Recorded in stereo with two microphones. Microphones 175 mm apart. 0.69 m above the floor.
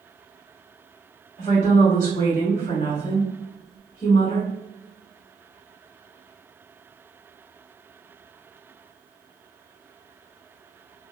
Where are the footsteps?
No footsteps in this recording.